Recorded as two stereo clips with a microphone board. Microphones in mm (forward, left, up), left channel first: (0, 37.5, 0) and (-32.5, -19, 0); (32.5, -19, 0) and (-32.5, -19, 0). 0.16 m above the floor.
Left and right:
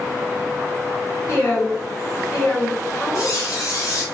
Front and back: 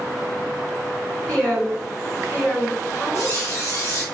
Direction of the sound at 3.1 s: 40° left.